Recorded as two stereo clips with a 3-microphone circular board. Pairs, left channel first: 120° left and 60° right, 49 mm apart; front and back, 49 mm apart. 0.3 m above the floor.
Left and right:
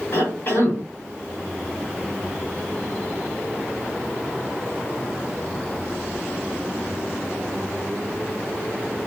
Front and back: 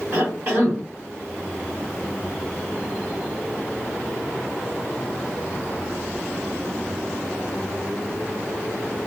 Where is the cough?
150° left, 1.9 m.